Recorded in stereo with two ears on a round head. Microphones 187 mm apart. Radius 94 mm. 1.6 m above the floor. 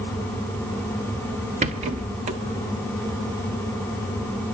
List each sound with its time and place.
1.6 s a rattle: 30° right (ahead or behind), 1.5 m